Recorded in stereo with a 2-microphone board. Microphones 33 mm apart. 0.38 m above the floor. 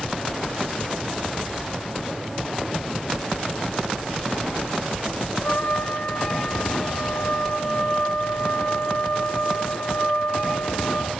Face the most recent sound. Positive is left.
turn(degrees=50)  # may be behind; listen again after turning